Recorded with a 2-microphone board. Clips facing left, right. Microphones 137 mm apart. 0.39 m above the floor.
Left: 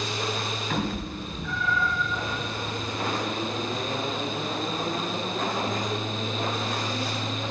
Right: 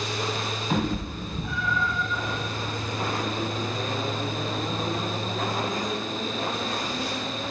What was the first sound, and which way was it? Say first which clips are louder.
A cat meowing: right 4 dB; 25° right (ahead or behind).